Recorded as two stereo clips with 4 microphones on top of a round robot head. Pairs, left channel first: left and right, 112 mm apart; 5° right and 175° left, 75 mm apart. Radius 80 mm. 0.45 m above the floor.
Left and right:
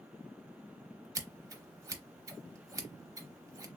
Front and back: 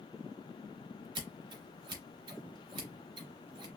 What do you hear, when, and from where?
1.1 s scissors: 155° right, 0.8 m